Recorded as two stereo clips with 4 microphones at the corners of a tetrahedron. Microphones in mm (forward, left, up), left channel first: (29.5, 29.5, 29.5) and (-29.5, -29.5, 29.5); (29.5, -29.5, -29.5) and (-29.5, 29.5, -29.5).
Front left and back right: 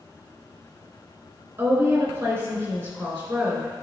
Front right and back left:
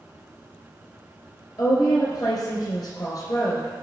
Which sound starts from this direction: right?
A woman speaking, at 1.6 s.